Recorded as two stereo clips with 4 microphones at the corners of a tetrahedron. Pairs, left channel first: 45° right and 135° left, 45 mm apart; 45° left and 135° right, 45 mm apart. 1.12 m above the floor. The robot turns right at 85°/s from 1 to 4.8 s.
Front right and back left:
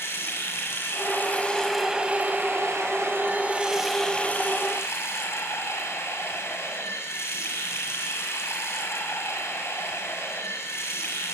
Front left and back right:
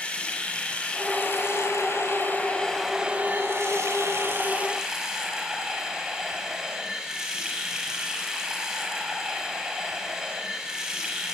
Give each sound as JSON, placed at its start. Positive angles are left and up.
{"t": 0.0, "sound": "running water", "azimuth_deg": -20, "distance_m": 7.5}